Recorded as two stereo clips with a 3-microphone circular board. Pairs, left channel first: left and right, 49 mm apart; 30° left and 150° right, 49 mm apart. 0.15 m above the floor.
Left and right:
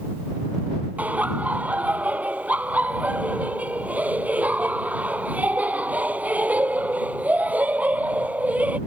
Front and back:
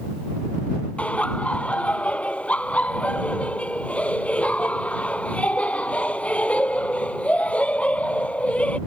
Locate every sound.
1.0 s laughter: 30° right